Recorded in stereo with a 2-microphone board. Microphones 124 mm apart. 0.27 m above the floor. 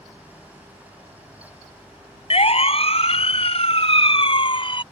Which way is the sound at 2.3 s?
55° left (ahead or behind).